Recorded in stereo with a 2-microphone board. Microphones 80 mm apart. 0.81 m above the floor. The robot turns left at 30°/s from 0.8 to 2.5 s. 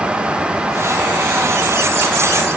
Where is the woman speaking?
I don't hear a woman speaking.